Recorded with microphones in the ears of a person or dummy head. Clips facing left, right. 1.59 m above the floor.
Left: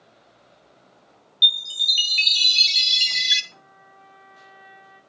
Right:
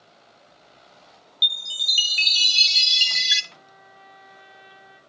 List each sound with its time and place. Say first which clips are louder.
1.4 s a chime: left 5 dB; 5° right (ahead or behind), 0.9 m
3.5 s a trumpet: right 1 dB; 40° right (ahead or behind), 4.5 m